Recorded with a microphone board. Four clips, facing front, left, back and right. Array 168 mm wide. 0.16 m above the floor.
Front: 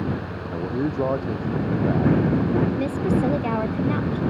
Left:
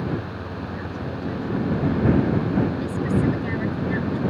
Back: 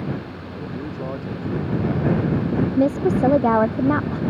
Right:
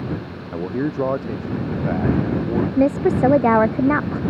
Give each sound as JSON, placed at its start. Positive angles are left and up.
{"t": 0.5, "sound": "a man speaking", "azimuth_deg": -60}
{"t": 2.8, "sound": "a woman speaking", "azimuth_deg": -120}